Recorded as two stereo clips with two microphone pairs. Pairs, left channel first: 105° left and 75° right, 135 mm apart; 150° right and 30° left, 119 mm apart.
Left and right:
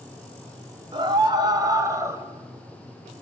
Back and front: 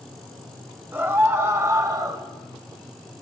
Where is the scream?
40° right, 2 m; by 2.2 s 15° right, 2 m.